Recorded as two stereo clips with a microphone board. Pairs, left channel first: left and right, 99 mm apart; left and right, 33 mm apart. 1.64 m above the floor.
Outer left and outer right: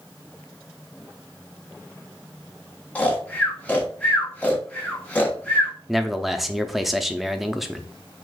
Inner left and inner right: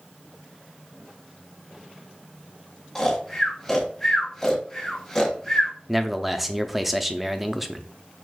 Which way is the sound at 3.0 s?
15° left (ahead or behind).